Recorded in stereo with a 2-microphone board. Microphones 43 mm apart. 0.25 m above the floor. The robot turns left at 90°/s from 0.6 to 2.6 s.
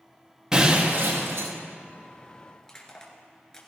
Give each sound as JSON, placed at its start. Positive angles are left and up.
{"t": 0.5, "sound": "breaking glass", "azimuth_deg": -10, "distance_m": 5.0}
{"t": 2.6, "sound": "crushing", "side_deg": 15, "distance_m": 2.5}